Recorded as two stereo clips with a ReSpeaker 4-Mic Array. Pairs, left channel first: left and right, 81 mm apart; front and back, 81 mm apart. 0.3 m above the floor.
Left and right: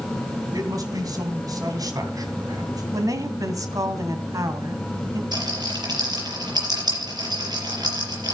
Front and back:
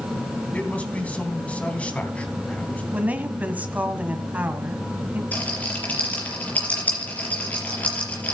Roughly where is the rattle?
Right.